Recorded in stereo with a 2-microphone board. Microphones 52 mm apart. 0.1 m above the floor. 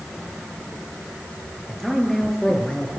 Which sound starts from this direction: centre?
A man speaking, at 1.7 s.